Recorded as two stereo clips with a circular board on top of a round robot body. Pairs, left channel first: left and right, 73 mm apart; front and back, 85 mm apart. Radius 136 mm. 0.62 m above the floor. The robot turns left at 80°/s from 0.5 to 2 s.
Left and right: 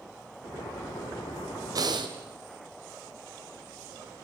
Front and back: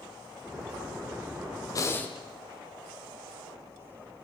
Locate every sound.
1.8 s breathing: 50° right, 1.6 m; by 2.2 s 70° right, 1.6 m